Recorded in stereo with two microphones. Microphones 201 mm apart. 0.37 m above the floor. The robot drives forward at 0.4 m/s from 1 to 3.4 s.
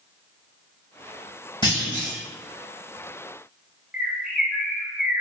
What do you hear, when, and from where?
1.6 s a clunk: 20° left (ahead or behind), 1.0 m
3.9 s a bird: 5° right (ahead or behind), 0.6 m